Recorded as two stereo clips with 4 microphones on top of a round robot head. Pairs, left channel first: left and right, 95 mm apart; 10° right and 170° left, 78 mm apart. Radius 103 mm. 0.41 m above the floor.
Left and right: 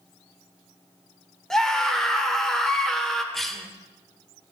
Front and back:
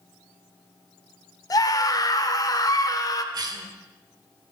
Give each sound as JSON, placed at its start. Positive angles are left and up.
{"t": 1.5, "sound": "a scream", "azimuth_deg": 5, "distance_m": 1.6}
{"t": 3.3, "sound": "a cough", "azimuth_deg": 180, "distance_m": 2.0}